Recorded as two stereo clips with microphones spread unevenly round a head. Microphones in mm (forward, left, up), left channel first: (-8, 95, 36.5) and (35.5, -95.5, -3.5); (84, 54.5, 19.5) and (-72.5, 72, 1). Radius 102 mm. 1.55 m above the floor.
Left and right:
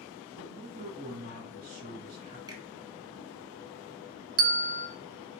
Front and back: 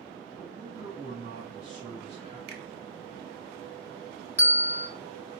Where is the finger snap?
155° right, 0.6 m.